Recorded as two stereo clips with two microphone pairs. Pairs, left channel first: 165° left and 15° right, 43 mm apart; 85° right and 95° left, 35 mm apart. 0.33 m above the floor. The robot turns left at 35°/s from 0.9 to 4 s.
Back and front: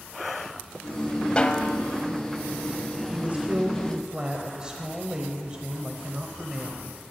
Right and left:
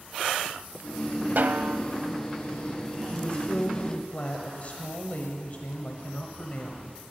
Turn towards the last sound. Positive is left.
turn(degrees=-75)